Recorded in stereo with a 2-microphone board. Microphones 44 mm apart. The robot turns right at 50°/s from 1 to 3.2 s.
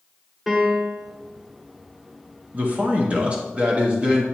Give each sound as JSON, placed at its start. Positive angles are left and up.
{"t": 0.5, "sound": "a piano", "side_deg": 0, "distance_m": 1.4}
{"t": 2.5, "sound": "a man speaking", "azimuth_deg": -80, "distance_m": 1.1}